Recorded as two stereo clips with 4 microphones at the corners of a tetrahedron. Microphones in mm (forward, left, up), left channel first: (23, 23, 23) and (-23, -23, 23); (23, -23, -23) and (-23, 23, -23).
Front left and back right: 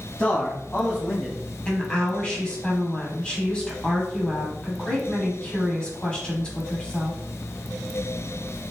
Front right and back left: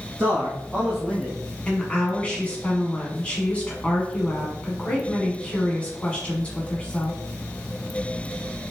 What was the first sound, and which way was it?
A man speaking, 100° left.